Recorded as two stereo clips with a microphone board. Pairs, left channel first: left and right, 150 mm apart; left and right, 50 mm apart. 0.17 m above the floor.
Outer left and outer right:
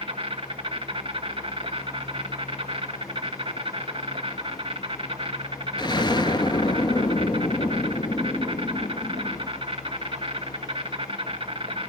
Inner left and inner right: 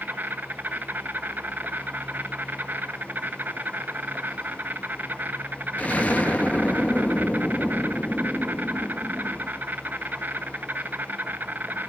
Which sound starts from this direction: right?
An insect, at 0.0 s.